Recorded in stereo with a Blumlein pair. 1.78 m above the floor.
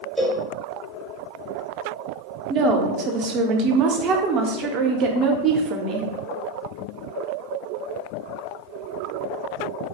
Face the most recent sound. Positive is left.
turn(degrees=-30)